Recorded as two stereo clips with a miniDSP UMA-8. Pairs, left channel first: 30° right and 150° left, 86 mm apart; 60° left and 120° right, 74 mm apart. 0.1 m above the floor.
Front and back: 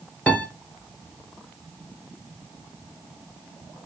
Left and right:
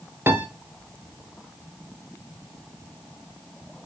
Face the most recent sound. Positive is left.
turn(degrees=-90)